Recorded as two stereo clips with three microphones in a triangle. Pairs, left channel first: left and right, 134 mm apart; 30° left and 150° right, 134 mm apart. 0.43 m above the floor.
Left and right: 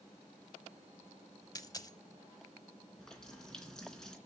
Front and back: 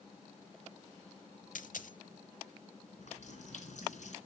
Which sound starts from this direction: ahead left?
A dropped coin, at 1.6 s.